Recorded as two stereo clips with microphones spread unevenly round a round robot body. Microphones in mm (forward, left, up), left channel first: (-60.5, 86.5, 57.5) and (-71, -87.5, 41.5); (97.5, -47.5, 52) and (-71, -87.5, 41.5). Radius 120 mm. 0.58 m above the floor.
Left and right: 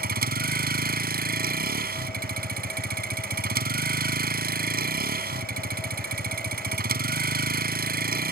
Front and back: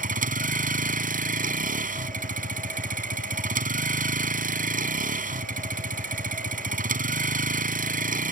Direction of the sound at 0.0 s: 125° right.